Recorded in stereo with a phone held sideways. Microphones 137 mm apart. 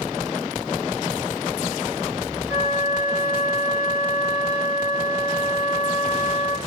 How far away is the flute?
About 0.9 m.